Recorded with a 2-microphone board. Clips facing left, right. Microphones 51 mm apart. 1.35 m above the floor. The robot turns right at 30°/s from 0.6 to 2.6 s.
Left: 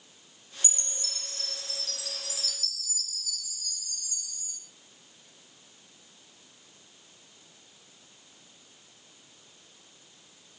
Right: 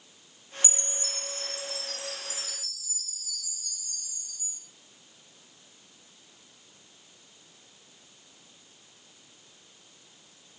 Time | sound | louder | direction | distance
0.6 | a chime | right 5 dB | 45° left | 3 m